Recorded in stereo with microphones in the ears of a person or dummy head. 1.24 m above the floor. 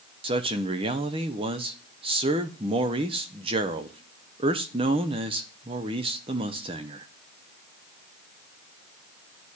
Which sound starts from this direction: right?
A man speaking, at 0.2 s.